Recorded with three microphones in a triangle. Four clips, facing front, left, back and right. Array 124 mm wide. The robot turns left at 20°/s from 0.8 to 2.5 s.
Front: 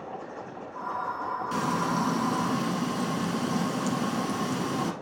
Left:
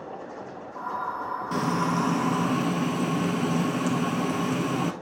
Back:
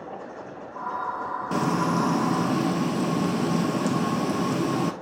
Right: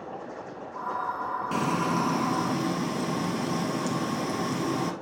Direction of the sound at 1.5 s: 170° right.